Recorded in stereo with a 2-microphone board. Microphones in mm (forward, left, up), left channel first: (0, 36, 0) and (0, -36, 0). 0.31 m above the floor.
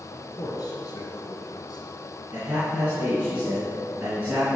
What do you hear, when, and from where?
0.1 s a man speaking: 50° left (ahead or behind), 3 m; by 2.0 s 60° left (ahead or behind), 2.5 m
2.3 s a man speaking: 20° right (ahead or behind), 3 m